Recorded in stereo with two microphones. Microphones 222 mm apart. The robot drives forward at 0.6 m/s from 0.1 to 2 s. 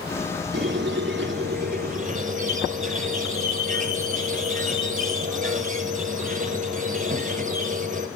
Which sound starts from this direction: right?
A squeak, at 0.5 s.